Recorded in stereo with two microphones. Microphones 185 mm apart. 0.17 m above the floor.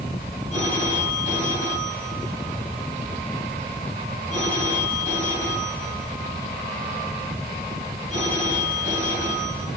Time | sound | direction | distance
0.5 | a phone ringing | 40° left (ahead or behind) | 5.5 m